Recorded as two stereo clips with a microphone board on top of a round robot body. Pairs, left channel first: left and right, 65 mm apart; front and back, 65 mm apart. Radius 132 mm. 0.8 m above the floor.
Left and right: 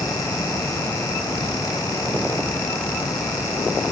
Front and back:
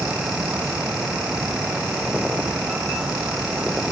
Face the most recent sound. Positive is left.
No sound to turn to.